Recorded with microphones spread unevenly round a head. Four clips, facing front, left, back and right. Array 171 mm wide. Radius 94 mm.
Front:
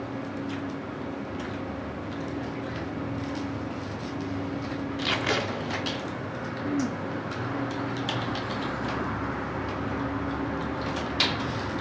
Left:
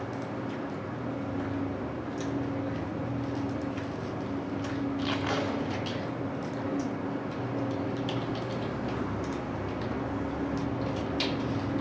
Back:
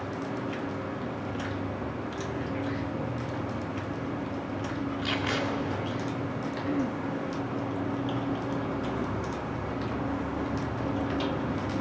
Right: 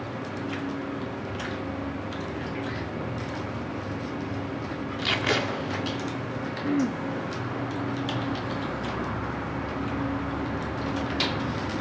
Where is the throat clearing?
85° right, 0.9 m.